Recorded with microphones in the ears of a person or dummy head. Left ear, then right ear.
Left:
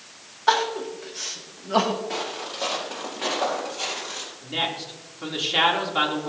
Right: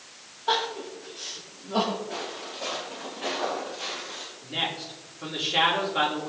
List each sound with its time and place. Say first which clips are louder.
0.5 s crying: left 5 dB; 65° left (ahead or behind), 2.0 m
2.1 s footsteps: left 5 dB; 45° left (ahead or behind), 5.5 m; by 4.3 s 35° left (ahead or behind), 4.5 m
4.4 s a man speaking: left 2 dB; 10° left (ahead or behind), 2.5 m